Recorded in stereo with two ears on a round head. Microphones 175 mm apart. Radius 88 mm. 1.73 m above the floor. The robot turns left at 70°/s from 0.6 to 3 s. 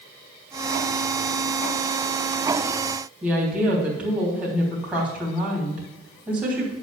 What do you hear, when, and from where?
3.2 s a woman speaking: 5° right (ahead or behind), 3.5 m